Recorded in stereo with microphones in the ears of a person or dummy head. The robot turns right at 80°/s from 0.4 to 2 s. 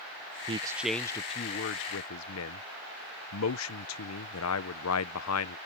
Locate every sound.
0.5 s a man speaking: 35° right; by 5.6 s 85° left